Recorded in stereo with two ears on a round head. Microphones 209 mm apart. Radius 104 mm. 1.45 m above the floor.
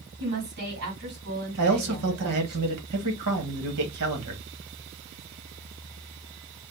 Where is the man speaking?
75° right (ahead or behind), 1.5 m.